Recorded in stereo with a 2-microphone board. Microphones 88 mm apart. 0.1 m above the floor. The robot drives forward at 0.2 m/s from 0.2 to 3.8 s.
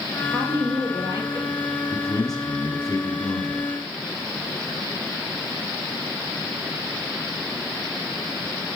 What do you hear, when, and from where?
0.3 s a woman speaking: 35° right (ahead or behind), 2 m
1.9 s a man speaking: 40° left (ahead or behind), 1.4 m